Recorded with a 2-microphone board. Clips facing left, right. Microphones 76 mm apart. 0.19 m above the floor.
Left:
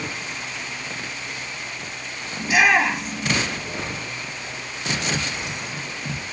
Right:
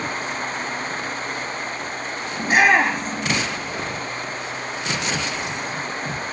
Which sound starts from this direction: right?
A shout, at 2.4 s.